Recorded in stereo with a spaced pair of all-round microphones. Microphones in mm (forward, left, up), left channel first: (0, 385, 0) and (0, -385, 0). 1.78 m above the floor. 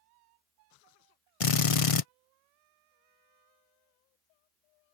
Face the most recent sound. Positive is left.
turn(degrees=45)  # may be behind; listen again after turning